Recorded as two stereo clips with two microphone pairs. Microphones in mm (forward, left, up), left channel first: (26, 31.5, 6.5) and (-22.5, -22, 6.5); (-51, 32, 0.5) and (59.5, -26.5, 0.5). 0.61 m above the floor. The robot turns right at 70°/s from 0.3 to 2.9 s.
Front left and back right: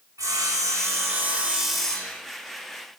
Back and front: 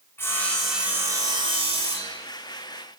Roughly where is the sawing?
Behind right.